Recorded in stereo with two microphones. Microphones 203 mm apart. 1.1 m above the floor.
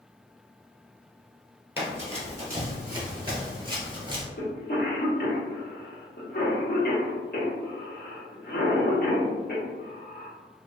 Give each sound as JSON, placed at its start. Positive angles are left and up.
{"t": 1.8, "sound": "running footsteps", "side_deg": -10, "distance_m": 1.4}
{"t": 4.4, "sound": "a cough", "side_deg": 50, "distance_m": 1.0}